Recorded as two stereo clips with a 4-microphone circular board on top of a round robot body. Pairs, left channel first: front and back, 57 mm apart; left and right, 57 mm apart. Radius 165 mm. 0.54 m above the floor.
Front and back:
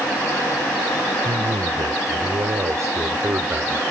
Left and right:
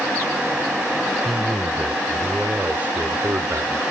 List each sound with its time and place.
1.2 s a man speaking: 175° right; by 3.8 s 125° right